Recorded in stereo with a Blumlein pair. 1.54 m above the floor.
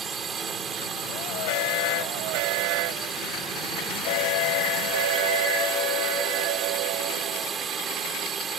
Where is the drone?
20° right.